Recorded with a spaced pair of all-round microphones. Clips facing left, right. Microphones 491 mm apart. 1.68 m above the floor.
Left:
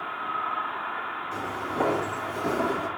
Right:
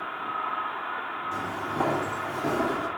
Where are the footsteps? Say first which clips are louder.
Left 1 dB; 15° right (ahead or behind), 4.5 m; by 2.9 s 20° right (ahead or behind), 3.5 m.